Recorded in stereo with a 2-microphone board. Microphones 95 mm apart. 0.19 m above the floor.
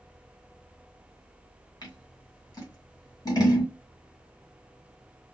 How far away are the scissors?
About 2 m.